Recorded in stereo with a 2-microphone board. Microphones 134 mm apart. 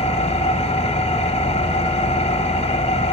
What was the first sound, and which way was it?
An engine running, 55° left (ahead or behind).